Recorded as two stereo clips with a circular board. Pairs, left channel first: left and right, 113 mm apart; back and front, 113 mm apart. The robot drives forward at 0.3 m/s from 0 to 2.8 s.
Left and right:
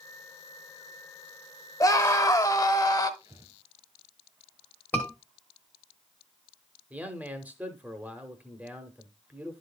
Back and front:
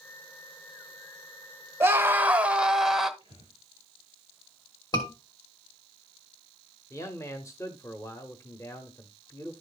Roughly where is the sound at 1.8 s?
Ahead left.